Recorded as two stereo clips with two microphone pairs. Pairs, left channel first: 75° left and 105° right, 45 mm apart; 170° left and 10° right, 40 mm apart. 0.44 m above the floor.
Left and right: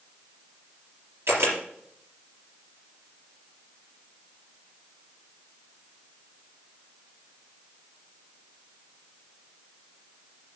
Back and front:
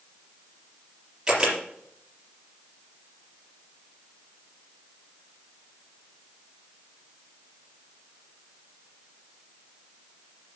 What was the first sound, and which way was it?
A camera shutter, 80° right.